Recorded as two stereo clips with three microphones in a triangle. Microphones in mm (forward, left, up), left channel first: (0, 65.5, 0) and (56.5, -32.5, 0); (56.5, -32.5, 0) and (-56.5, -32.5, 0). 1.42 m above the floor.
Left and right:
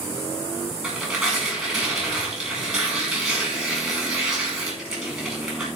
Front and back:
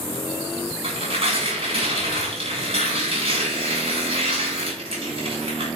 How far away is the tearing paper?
About 8 m.